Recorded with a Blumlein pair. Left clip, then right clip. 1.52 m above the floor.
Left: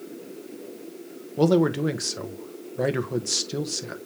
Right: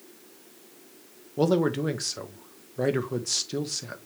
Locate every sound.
1.4 s a man speaking: 5° left, 0.9 m